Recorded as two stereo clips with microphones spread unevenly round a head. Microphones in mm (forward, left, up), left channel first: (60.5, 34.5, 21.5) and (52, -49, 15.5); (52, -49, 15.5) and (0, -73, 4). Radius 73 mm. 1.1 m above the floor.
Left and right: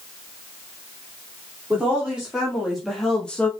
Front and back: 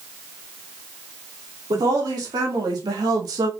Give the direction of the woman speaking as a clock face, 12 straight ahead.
6 o'clock.